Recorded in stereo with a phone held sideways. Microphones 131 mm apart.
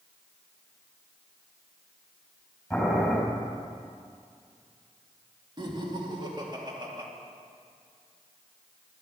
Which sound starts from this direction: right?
Laughter, at 5.6 s.